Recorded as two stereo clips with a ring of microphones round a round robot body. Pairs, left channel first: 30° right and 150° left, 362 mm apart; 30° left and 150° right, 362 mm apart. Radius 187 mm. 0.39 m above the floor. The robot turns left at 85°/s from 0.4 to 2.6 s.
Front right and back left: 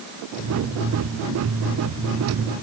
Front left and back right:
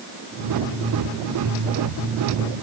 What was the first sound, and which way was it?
Only background noise.